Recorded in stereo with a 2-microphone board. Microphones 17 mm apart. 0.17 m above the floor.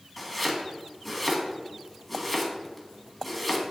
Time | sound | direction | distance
0.2 | chopping | 5° left (ahead or behind) | 1.5 m